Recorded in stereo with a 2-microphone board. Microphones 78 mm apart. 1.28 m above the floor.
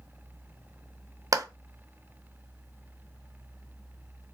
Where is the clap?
45° right (ahead or behind), 0.5 m.